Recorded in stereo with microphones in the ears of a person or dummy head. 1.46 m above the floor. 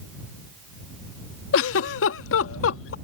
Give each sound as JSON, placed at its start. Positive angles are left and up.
{"t": 1.5, "sound": "a giggle", "side_deg": 65}